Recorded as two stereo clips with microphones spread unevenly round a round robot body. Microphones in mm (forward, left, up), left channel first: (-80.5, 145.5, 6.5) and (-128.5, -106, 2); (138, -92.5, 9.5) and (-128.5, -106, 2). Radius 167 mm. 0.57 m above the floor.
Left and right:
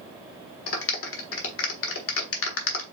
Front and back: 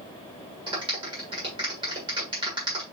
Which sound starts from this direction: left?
A clap, at 0.7 s.